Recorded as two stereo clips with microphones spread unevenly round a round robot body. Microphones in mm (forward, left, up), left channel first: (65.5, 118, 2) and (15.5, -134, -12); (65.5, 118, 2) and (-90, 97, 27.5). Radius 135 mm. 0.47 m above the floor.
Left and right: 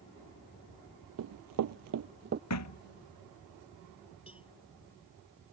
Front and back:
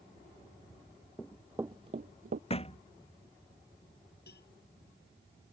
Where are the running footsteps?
80° right; by 2.4 s 160° right.